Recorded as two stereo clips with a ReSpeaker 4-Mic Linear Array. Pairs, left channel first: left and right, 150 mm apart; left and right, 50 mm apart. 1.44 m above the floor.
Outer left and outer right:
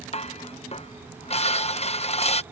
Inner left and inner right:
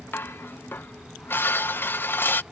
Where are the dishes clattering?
45° left (ahead or behind).